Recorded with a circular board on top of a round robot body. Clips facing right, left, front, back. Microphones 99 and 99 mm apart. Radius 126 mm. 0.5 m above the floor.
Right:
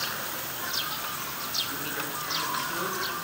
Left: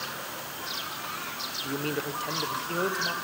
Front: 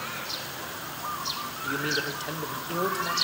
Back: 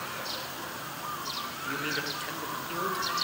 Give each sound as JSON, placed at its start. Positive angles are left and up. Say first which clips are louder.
{"t": 1.6, "sound": "a man speaking", "louder": "left 7 dB, front 5 dB", "azimuth_deg": 70, "distance_m": 2.0}